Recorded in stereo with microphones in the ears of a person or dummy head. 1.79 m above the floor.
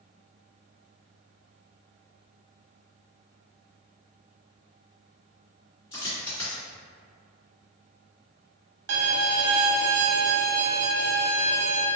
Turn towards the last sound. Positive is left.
turn(degrees=-70)  # may be behind; listen again after turning